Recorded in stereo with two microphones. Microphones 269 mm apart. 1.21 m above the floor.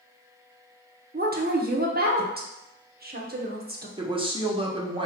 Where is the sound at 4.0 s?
20° right (ahead or behind), 0.9 m.